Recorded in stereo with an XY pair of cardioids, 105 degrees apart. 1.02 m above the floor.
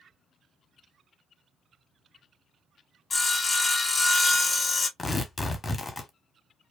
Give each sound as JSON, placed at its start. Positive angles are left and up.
{"t": 3.1, "sound": "sawing", "azimuth_deg": 35, "distance_m": 1.0}
{"t": 5.0, "sound": "tearing paper", "azimuth_deg": 25, "distance_m": 1.1}